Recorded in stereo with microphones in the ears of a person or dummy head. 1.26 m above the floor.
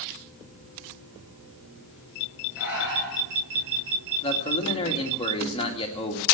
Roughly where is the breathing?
Centre.